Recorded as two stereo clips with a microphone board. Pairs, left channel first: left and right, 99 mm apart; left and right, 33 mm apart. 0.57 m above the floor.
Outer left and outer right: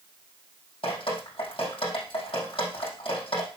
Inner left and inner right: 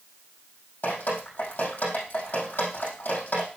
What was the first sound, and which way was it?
Dripping, 65° left (ahead or behind).